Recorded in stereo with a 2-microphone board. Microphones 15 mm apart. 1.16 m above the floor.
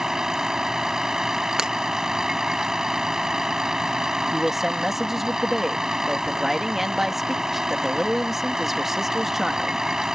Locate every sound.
0.0 s a vehicle: 45° right (ahead or behind)
1.6 s breaking glass: 50° right (ahead or behind)
4.3 s a man speaking: 20° right (ahead or behind)